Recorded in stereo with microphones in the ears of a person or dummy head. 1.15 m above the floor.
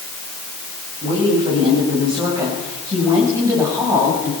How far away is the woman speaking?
About 6.5 m.